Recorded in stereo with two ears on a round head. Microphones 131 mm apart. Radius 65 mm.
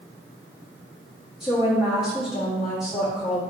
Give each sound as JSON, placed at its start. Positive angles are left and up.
{"t": 1.4, "sound": "a woman speaking", "side_deg": -5, "distance_m": 0.8}